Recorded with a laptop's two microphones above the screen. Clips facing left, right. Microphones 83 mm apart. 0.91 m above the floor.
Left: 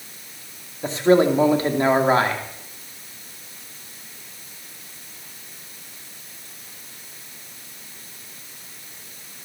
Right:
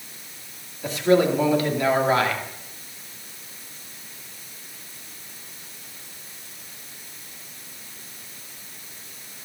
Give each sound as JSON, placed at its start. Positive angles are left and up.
{"t": 0.8, "sound": "a man speaking", "side_deg": 30, "distance_m": 2.0}